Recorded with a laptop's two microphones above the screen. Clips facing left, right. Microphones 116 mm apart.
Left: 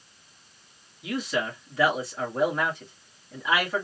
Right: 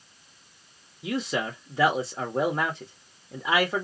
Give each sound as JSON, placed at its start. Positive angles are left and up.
{"t": 1.0, "sound": "a man speaking", "side_deg": -25, "distance_m": 1.6}